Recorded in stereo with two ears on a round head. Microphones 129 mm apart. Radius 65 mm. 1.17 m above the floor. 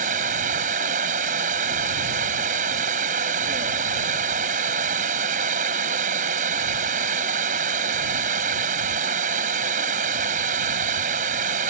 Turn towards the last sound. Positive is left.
turn(degrees=-55)  # may be behind; listen again after turning